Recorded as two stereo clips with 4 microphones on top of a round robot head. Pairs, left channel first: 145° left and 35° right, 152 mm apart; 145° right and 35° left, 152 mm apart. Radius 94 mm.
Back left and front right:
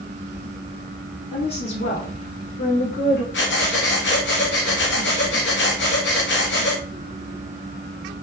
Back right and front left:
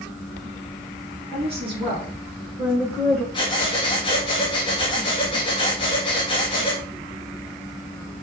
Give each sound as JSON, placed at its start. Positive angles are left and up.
{"t": 1.3, "sound": "a woman speaking", "azimuth_deg": 90, "distance_m": 3.5}
{"t": 3.3, "sound": "breathing", "azimuth_deg": 155, "distance_m": 1.7}